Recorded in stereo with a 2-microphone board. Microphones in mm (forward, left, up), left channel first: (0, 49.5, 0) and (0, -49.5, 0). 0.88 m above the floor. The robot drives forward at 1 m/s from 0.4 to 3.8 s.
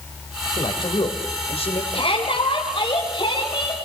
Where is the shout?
65° left (ahead or behind), 4 m; by 3.8 s 50° left (ahead or behind), 5 m.